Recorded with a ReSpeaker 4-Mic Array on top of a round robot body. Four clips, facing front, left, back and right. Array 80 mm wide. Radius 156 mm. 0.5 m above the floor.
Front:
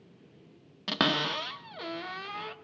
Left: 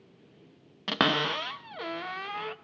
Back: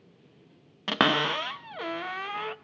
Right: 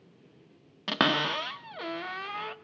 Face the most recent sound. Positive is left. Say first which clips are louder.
# even, back 4 dB
turn(degrees=175)